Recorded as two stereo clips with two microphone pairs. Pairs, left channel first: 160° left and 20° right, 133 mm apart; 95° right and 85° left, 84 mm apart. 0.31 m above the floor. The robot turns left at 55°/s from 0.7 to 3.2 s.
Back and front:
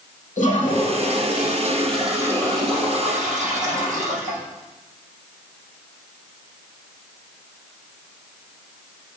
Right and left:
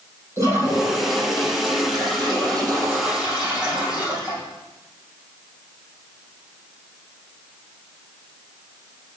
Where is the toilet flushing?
140° left, 4 m; by 4.4 s 5° left, 4 m.